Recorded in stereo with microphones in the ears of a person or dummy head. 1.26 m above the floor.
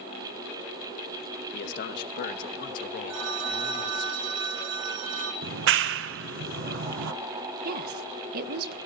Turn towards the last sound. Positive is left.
turn(degrees=-50)  # may be behind; listen again after turning